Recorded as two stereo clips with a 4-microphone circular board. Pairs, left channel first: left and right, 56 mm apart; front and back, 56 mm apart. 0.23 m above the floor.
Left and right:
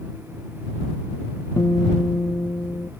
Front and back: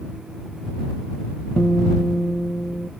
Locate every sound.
1.6 s a guitar: 60° left